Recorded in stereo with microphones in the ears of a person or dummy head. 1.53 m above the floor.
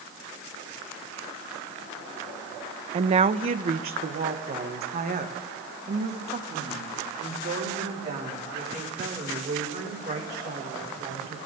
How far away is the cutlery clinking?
No cutlery clinking in this recording.